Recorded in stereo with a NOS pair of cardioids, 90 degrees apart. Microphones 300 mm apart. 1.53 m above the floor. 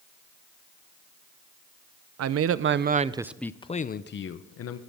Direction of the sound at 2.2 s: 60° right.